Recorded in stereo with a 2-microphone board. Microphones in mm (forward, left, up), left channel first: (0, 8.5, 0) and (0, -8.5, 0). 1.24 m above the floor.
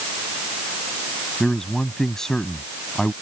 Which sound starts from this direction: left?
A man speaking, at 1.4 s.